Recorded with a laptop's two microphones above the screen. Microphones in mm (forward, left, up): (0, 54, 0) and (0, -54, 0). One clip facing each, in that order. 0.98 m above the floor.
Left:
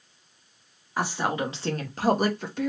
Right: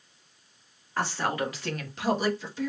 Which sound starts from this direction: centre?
A woman speaking, at 1.0 s.